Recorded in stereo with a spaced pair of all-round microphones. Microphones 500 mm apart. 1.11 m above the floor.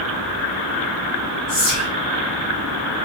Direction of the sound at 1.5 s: 55° right (ahead or behind).